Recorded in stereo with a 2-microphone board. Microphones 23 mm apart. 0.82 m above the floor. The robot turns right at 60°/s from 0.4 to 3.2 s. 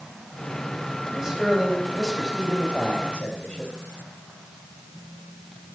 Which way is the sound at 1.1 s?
30° right.